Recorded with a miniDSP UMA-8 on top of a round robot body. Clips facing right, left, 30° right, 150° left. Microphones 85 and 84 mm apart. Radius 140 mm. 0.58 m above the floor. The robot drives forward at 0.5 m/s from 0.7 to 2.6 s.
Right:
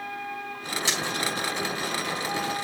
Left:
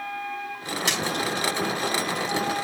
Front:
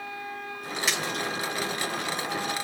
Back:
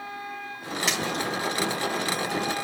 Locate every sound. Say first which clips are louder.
0.9 s a splash: left 3 dB, back 2 dB; 60° left, 5.5 m